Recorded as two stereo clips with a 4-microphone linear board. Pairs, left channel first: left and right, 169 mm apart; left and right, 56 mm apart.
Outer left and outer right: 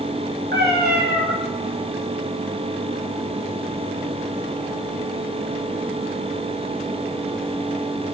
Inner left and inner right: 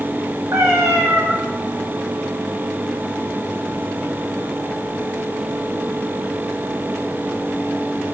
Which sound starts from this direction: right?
A cat meowing, at 0.5 s.